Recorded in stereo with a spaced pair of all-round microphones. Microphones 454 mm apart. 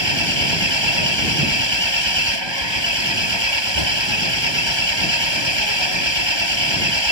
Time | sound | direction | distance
0.0 | an engine running | 70° right (ahead or behind) | ?